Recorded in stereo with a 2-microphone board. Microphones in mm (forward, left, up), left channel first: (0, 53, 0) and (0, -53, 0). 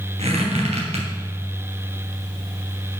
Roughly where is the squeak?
Right.